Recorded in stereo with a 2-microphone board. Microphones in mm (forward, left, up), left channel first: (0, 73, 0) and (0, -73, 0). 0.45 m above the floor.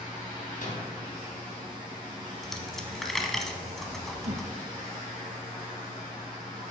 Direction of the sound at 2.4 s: Centre (ahead or behind).